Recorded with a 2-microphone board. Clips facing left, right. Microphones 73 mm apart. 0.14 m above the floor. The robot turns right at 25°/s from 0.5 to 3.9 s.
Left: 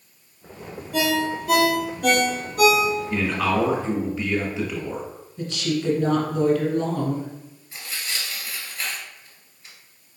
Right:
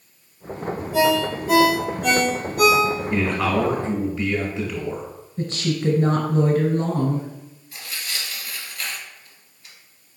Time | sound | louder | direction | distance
0.9 | a ringtone | right 3 dB | 80° left | 2 m
3.1 | a man speaking | right 1 dB | 5° right (ahead or behind) | 1.5 m
5.4 | a woman speaking | right 1 dB | 40° right (ahead or behind) | 1.3 m
7.7 | tearing paper | even | 25° left (ahead or behind) | 1.8 m